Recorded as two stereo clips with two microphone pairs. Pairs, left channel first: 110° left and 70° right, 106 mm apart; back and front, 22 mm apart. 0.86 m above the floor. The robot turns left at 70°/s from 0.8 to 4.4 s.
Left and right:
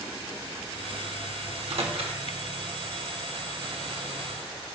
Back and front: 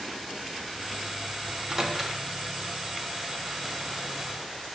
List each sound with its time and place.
1.5 s a microwave: 45° right, 1.2 m; by 2.2 s 95° right, 1.2 m